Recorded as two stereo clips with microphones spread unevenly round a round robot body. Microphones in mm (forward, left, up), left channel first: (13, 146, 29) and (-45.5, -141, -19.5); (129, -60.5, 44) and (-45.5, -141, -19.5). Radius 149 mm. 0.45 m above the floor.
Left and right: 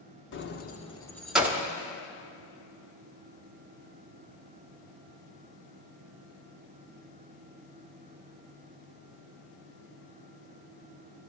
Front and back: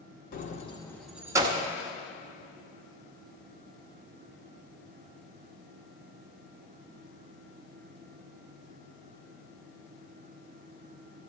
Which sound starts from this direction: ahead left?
Keys jangling, at 0.3 s.